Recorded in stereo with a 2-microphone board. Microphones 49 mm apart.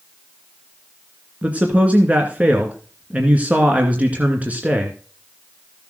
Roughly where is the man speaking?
Right.